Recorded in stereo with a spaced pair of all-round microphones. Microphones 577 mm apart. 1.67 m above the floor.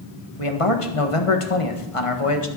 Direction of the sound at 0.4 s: 60° left (ahead or behind).